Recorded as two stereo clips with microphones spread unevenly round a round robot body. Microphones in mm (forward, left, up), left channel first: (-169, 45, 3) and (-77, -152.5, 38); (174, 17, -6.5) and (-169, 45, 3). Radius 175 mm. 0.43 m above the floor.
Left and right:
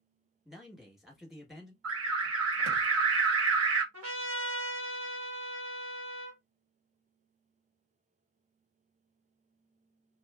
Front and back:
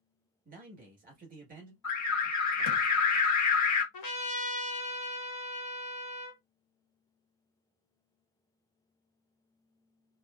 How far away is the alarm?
About 1.1 m.